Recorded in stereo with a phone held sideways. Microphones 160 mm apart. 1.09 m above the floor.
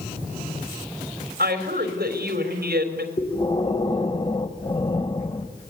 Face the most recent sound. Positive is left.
turn(degrees=35)  # may be behind; listen again after turning